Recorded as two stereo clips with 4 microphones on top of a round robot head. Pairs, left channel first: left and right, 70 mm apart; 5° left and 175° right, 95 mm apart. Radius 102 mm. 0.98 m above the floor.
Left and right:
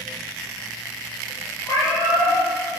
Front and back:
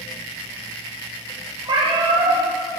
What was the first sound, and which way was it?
A cat meowing, 145° left.